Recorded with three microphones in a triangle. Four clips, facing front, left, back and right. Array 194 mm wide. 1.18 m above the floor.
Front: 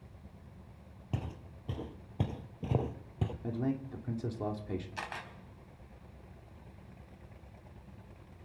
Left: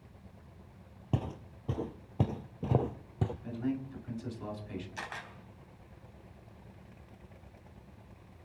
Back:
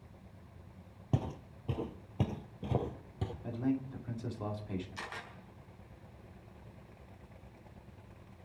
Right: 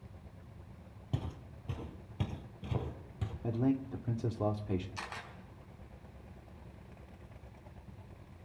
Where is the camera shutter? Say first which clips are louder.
Left 2 dB, front 3 dB; 20° left, 3.5 m.